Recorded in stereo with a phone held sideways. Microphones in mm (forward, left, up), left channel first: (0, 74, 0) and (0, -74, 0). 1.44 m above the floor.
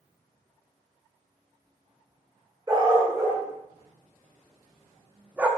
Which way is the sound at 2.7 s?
30° right (ahead or behind).